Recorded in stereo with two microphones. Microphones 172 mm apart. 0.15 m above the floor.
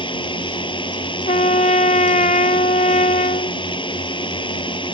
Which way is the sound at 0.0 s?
30° left (ahead or behind).